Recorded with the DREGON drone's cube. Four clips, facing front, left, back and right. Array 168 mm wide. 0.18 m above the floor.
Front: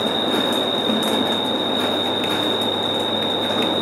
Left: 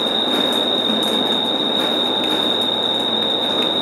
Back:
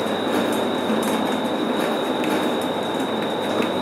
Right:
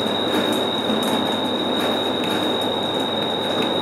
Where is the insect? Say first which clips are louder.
Even, even; 15° left.